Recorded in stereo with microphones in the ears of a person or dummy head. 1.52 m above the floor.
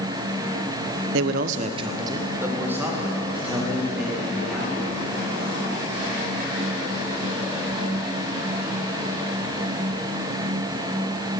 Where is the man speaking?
75° right (ahead or behind), 0.7 m; by 4.9 s 5° right (ahead or behind), 4 m.